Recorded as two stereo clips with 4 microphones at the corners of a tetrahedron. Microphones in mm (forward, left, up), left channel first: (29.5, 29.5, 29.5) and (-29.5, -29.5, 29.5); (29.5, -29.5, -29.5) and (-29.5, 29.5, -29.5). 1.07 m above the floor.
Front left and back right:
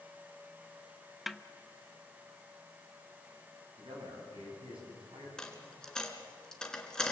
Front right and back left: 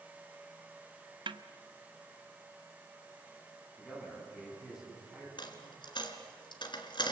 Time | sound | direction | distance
1.3 | a snare drum | 135° left | 0.7 m
3.8 | a man speaking | 140° right | 8 m
5.4 | a dropped coin | 35° right | 2.5 m